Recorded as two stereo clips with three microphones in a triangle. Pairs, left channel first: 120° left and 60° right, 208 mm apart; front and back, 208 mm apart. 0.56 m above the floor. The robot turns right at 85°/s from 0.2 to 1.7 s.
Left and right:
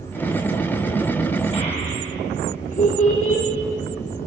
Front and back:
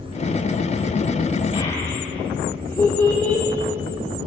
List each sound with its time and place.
1.5 s a child speaking: 60° left, 0.6 m; by 3.5 s 75° left, 0.6 m